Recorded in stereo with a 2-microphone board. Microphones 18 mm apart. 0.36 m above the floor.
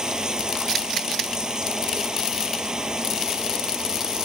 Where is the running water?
40° right (ahead or behind).